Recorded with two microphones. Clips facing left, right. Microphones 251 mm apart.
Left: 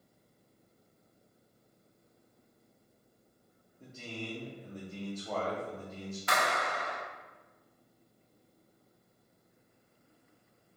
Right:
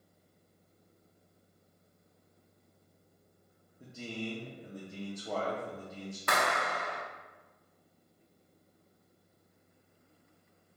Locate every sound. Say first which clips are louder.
3.8 s a man speaking: right 3 dB; 10° right (ahead or behind), 0.7 m
6.3 s a clap: right 1 dB; 55° right (ahead or behind), 0.7 m